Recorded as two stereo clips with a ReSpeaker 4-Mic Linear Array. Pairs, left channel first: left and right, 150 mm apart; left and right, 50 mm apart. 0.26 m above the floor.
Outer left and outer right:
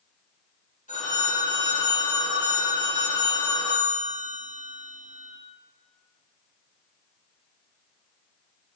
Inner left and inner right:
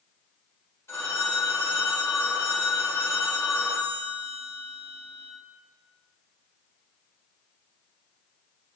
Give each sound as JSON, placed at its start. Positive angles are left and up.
{"t": 0.9, "sound": "a phone ringing", "side_deg": 65, "distance_m": 1.8}